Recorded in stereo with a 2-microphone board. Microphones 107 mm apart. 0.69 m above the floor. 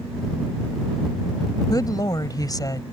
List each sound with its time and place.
1.7 s a woman speaking: 35° left (ahead or behind)